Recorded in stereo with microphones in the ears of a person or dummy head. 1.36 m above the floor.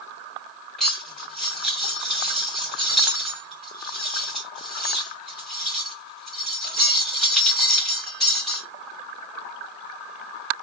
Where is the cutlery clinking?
5° left (ahead or behind), 2.5 m.